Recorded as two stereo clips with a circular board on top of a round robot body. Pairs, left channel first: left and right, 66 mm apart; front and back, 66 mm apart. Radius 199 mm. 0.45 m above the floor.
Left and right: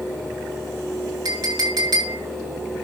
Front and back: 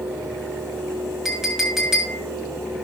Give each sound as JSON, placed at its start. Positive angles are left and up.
{"t": 1.2, "sound": "a clink", "azimuth_deg": -95, "distance_m": 3.0}